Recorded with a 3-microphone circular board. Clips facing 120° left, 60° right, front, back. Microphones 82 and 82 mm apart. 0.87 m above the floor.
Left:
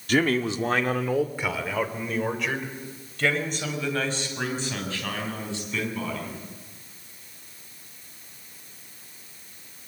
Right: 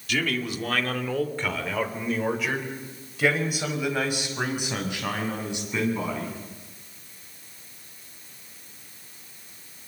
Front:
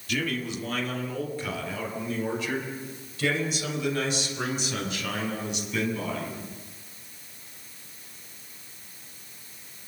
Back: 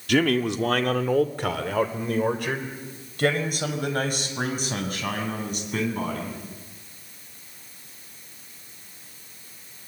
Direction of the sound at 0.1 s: 165° left.